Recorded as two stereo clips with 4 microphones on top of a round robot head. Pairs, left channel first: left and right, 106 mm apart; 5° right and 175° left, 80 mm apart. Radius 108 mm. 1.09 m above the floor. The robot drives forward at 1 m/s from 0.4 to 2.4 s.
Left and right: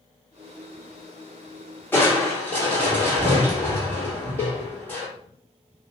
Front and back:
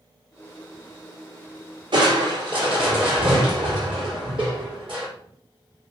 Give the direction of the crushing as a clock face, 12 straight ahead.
7 o'clock.